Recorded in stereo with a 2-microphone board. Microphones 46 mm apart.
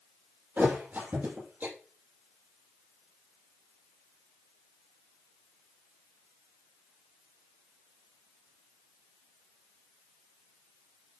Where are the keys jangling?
I don't hear keys jangling.